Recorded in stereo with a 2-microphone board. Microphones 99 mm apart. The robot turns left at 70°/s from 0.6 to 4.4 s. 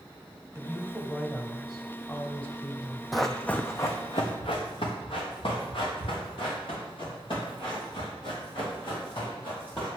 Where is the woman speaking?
25° right (ahead or behind), 1.1 m; by 3.7 s 15° left (ahead or behind), 1.1 m.